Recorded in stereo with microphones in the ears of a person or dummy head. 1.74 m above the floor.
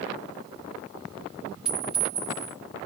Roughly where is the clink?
Centre.